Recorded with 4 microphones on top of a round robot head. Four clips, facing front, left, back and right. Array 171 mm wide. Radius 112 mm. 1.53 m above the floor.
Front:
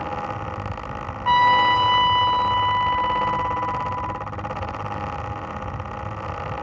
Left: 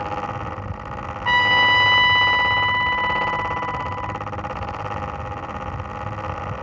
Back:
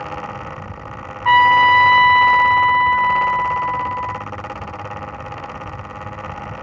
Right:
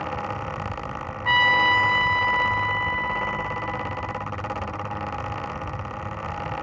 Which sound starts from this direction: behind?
A trumpet, at 1.2 s.